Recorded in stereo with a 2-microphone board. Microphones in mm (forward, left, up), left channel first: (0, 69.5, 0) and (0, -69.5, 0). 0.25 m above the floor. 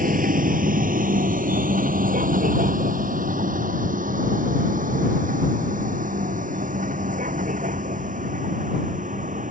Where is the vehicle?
80° right; by 9.5 s 65° right (ahead or behind).